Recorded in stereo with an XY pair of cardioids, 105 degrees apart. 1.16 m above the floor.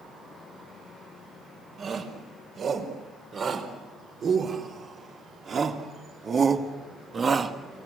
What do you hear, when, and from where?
1.8 s a shout: 55° right, 5.5 m; by 7.6 s 35° right, 1.9 m